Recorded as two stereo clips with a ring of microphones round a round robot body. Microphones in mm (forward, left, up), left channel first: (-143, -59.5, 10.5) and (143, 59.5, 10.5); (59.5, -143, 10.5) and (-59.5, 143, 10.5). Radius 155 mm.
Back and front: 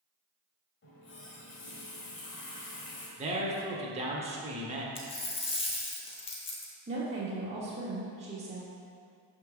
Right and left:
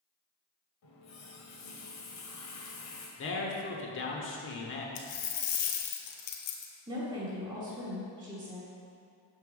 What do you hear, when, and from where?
0.8 s a running tap: 105° right, 1.4 m
3.2 s a man speaking: 40° right, 1.0 m
5.0 s a dropped coin: 85° right, 1.0 m
6.9 s a woman speaking: 55° left, 1.2 m